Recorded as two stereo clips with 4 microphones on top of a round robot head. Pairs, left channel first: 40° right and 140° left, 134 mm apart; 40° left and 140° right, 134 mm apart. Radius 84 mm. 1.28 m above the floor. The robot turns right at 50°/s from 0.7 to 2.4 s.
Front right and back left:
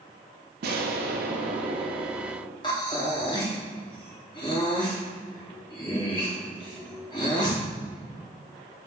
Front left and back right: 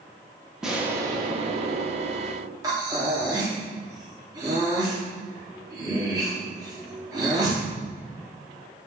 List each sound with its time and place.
0.6 s an explosion: 135° left, 0.6 m; by 2.5 s 140° right, 0.6 m
2.6 s breathing: 85° right, 0.9 m